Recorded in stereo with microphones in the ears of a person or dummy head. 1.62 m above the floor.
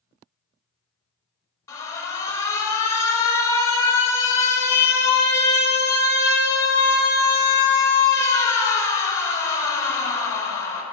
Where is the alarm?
15° left (ahead or behind), 0.7 m.